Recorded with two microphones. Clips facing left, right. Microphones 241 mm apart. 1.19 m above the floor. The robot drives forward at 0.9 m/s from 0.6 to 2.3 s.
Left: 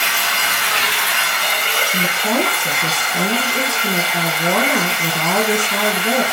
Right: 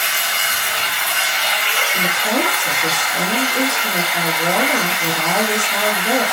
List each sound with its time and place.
0.0 s running water: 70° left (ahead or behind), 0.8 m; by 6.3 s 30° left (ahead or behind), 1.5 m
1.9 s a woman speaking: 60° left (ahead or behind), 1.4 m; by 6.2 s 65° left (ahead or behind), 1.3 m